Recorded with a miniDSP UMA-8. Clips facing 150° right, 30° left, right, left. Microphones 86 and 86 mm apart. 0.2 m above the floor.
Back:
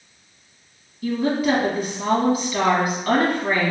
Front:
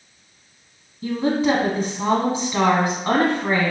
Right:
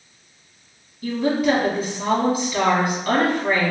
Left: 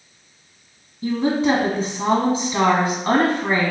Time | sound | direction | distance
1.0 | a woman speaking | 60° left | 1.2 m